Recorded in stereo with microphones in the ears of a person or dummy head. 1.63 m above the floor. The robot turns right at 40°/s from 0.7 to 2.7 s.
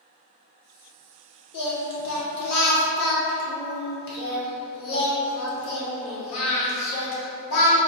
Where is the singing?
65° left, 1.0 m; by 7.8 s 110° left, 1.0 m.